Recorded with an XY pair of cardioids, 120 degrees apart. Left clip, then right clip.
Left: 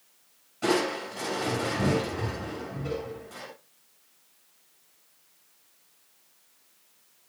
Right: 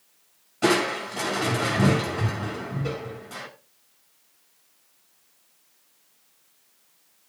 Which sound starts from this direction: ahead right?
Crushing, at 0.6 s.